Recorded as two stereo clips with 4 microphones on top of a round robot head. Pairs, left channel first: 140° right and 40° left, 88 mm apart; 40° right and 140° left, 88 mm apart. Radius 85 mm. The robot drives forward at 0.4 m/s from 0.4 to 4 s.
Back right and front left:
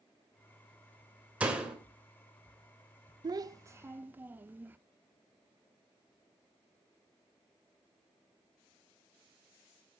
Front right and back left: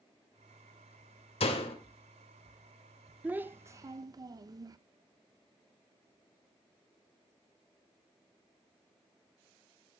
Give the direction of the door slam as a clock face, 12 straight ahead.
1 o'clock.